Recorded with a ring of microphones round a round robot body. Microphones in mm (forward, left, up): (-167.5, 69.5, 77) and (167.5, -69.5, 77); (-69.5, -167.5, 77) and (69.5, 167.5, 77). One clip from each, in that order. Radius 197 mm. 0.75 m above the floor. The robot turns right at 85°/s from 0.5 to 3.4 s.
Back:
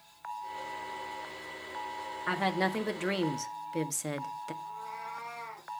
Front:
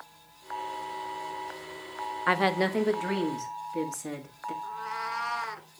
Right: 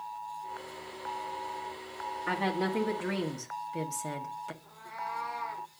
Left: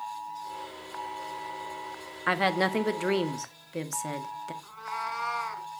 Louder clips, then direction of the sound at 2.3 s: Front 5 dB, left 7 dB; 40° left.